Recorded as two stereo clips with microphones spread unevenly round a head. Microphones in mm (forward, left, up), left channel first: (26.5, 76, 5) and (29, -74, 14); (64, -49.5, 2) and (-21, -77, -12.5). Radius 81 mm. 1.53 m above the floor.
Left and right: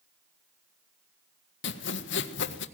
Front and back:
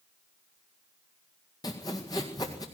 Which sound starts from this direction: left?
Sawing, at 1.6 s.